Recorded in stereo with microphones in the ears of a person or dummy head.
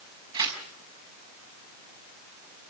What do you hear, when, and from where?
0.3 s tearing paper: 30° right (ahead or behind), 6 m